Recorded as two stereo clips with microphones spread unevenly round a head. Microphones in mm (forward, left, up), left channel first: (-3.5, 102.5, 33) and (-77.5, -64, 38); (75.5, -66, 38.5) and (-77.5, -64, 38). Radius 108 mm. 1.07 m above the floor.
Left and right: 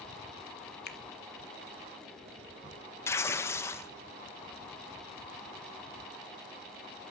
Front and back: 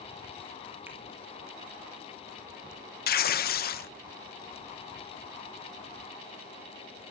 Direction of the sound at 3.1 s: 10° right.